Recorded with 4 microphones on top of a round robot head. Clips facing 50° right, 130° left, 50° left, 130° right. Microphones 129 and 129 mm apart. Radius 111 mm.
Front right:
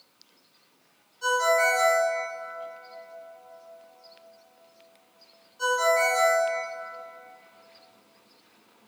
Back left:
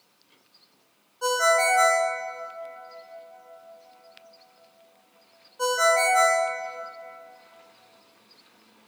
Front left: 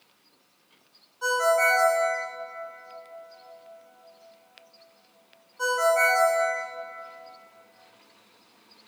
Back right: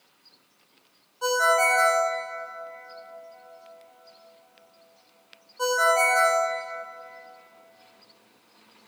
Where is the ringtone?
165° left, 1.4 m.